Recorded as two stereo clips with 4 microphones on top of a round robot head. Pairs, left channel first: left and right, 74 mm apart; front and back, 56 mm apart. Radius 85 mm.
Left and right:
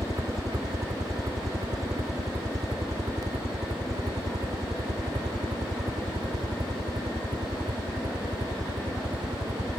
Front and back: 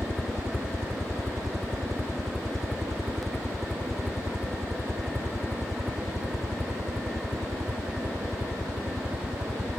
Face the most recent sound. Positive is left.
turn(degrees=-100)